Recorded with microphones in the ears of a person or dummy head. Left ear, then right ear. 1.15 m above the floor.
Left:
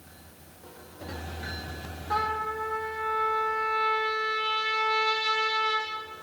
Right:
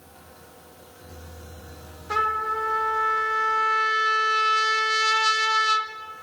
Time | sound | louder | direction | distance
2.1 | a trumpet | right 5 dB | 55° right (ahead or behind) | 2 m